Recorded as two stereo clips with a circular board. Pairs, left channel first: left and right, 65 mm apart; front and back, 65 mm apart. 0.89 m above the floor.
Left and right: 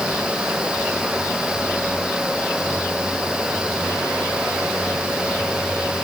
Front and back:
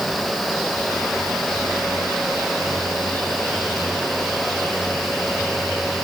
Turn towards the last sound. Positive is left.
No sound to turn to.